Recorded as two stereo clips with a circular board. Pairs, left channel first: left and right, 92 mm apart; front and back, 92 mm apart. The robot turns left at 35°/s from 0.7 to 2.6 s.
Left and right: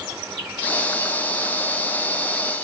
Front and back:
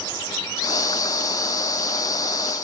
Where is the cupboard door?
I don't hear a cupboard door.